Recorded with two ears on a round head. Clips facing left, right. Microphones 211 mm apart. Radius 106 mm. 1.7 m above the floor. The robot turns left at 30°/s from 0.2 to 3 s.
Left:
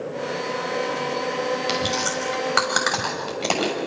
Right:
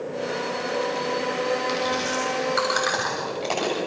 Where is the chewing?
75° left (ahead or behind), 6.5 m; by 3.8 s 65° left (ahead or behind), 6.5 m.